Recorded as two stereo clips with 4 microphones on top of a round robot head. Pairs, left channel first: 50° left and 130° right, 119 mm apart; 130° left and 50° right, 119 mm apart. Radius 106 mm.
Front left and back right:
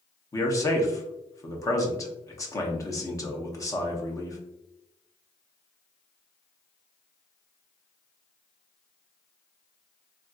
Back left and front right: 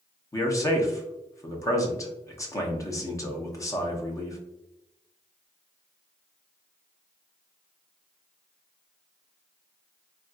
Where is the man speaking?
90° left, 0.9 m.